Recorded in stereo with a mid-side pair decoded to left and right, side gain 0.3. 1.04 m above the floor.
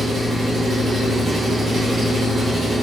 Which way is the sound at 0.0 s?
65° right.